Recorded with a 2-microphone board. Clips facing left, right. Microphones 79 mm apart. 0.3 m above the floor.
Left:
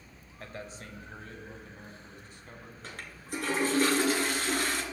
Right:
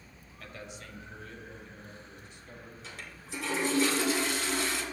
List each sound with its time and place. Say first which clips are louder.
0.4 s a man speaking: left 2 dB; 30° left (ahead or behind), 1.3 m; by 2.7 s 45° left (ahead or behind), 2.5 m
2.8 s a toilet flushing: left 6 dB; 50° left (ahead or behind), 2.5 m